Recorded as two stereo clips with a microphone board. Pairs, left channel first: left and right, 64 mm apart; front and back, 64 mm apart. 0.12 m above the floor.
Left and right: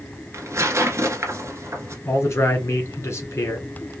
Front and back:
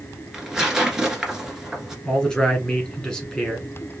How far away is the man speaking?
About 2.5 m.